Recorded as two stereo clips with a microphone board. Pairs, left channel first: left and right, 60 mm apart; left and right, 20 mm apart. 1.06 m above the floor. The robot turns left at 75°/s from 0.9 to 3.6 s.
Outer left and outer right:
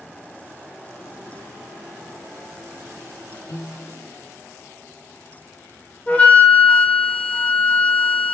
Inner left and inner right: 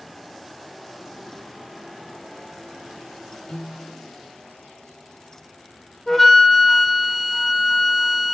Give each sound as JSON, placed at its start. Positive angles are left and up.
{"t": 3.5, "sound": "a piano", "side_deg": 75, "distance_m": 3.0}
{"t": 6.1, "sound": "a flute", "side_deg": 25, "distance_m": 1.0}